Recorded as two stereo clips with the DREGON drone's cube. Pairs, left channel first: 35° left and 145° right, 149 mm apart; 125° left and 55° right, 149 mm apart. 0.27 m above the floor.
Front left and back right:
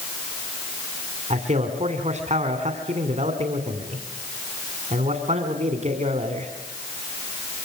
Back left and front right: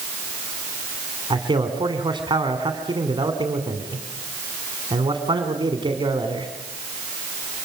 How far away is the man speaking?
About 2.5 m.